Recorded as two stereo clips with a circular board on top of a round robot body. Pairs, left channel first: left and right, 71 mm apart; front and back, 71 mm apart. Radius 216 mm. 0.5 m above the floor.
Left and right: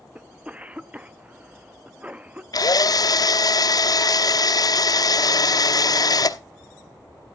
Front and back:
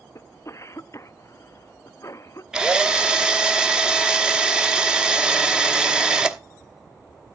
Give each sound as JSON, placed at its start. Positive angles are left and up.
{"t": 0.1, "sound": "a cough", "azimuth_deg": -25, "distance_m": 0.9}
{"t": 2.5, "sound": "a drill", "azimuth_deg": 100, "distance_m": 1.0}